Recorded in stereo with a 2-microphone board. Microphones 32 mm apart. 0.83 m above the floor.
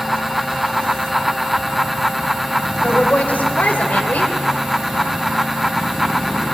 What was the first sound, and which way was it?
A woman speaking, 60° left (ahead or behind).